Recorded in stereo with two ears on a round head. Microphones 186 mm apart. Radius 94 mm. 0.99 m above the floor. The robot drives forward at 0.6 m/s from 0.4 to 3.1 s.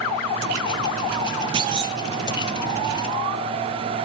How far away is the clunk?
About 1.0 m.